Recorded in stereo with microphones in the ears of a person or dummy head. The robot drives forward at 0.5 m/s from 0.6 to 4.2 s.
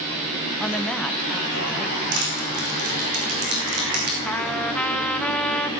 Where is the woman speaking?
5° left (ahead or behind), 1.1 m.